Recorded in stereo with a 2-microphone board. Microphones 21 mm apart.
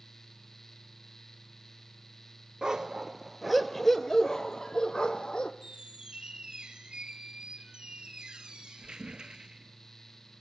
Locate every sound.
2.6 s a dog barking: 40° right (ahead or behind), 1.1 m; by 5.5 s 45° left (ahead or behind), 1.9 m
5.6 s a squeak: 45° right (ahead or behind), 1.4 m